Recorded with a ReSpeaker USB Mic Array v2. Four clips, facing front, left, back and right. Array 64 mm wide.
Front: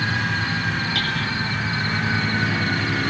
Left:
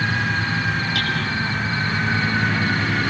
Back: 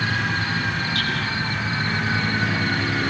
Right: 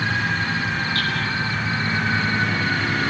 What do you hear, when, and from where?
0.9 s hammering: 30° left, 7 m